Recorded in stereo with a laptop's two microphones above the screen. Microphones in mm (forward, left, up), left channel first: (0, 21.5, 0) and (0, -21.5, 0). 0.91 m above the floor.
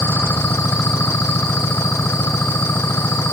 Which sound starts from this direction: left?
An engine running, at 0.0 s.